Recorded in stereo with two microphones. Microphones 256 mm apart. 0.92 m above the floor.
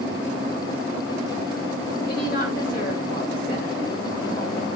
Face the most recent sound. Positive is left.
turn(degrees=35)  # may be behind; listen again after turning